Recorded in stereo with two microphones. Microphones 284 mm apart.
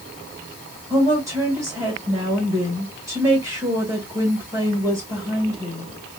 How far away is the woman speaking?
About 1.7 m.